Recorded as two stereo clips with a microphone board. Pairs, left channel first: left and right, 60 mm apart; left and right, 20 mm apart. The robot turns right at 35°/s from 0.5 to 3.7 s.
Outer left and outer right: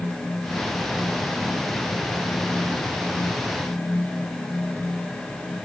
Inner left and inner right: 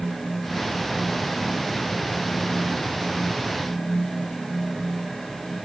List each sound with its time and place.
Only background noise.